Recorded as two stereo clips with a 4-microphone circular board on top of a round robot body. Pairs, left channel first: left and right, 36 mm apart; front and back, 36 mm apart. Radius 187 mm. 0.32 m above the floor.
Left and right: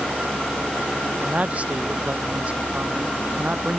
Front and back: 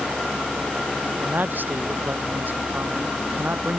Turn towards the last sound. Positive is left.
turn(degrees=-145)